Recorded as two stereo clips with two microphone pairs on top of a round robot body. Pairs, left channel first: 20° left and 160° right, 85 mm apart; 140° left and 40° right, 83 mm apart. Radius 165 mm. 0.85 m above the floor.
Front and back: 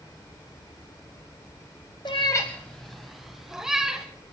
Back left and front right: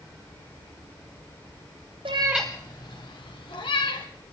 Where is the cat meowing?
40° right, 0.7 m; by 4.1 s 120° left, 2 m.